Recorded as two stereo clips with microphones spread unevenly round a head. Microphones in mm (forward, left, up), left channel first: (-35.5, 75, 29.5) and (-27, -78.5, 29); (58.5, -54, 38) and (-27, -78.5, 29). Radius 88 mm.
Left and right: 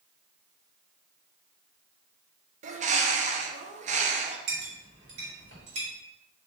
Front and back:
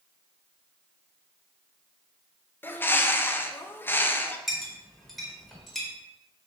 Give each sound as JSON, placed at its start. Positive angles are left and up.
{"t": 2.6, "sound": "a bird", "azimuth_deg": -55, "distance_m": 0.5}
{"t": 4.5, "sound": "a clink", "azimuth_deg": -70, "distance_m": 1.7}